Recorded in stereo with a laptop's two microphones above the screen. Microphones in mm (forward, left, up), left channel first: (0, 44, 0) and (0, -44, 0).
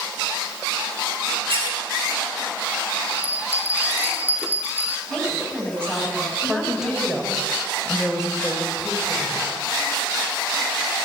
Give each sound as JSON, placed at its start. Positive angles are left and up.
{"t": 1.5, "sound": "a squeak", "side_deg": -85, "distance_m": 8.5}
{"t": 3.2, "sound": "a bell", "side_deg": -20, "distance_m": 2.5}
{"t": 5.1, "sound": "a woman speaking", "side_deg": 10, "distance_m": 7.0}
{"t": 6.4, "sound": "a woman speaking", "side_deg": -10, "distance_m": 5.0}